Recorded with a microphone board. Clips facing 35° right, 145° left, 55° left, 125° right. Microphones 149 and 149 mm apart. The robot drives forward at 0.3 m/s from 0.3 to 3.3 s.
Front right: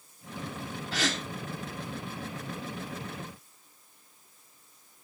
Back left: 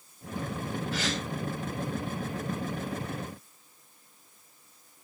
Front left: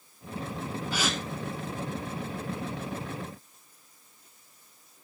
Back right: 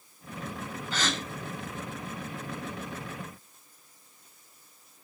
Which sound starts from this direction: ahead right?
A gasp, at 0.9 s.